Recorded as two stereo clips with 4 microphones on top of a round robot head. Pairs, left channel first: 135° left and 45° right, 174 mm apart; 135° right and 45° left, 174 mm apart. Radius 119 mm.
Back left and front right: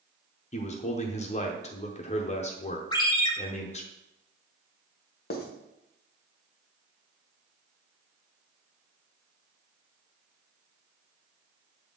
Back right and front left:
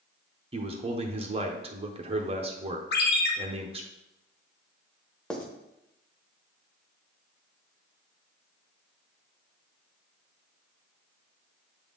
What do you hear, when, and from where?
0.5 s a man speaking: 95° left, 0.8 m
2.9 s a ringtone: 160° right, 0.9 m
5.3 s writing: 140° left, 1.2 m